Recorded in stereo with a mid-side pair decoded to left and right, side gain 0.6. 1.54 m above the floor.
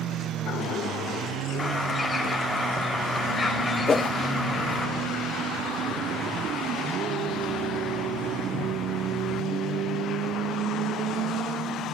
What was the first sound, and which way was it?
A bird, 20° left.